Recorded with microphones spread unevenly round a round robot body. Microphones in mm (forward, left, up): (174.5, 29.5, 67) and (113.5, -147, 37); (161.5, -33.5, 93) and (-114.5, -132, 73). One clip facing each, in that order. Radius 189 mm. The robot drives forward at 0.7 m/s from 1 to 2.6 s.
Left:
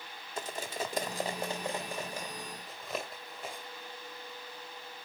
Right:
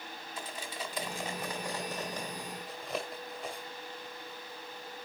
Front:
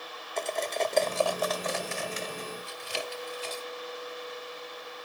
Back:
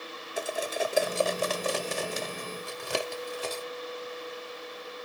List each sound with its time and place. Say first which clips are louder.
0.4 s cutlery clinking: left 5 dB, even; 120° left, 0.6 m; by 3.6 s 160° left, 1.5 m